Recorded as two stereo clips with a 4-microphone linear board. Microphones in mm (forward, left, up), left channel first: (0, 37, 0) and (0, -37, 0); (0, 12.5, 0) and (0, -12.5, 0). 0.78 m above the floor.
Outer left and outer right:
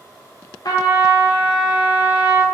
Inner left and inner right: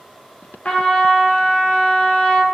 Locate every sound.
0.7 s a trumpet: 60° left (ahead or behind), 0.7 m